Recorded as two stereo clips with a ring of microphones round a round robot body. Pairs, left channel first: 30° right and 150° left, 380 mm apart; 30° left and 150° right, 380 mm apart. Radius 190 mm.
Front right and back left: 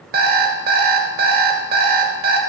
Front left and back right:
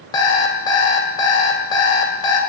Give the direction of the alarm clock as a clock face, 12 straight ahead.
9 o'clock.